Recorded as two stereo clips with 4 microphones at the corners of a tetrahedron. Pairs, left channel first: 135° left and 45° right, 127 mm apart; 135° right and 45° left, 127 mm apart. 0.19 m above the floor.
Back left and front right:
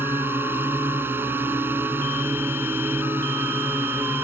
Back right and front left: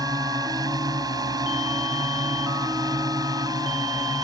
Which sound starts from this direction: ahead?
A drone, at 0.0 s.